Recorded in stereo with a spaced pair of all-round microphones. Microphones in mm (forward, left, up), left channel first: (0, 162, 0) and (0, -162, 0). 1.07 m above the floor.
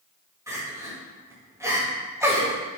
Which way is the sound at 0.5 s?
10° right (ahead or behind).